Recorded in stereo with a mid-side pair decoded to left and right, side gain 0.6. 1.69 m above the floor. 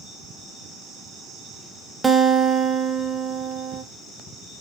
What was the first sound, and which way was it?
A guitar, 20° right.